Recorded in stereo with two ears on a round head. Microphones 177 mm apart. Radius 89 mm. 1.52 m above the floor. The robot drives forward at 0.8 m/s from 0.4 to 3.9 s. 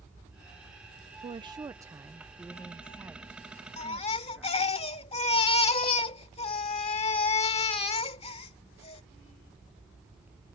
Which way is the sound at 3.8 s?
30° left (ahead or behind).